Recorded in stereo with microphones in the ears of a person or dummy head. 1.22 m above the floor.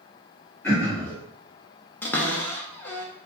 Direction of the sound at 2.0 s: 10° left (ahead or behind).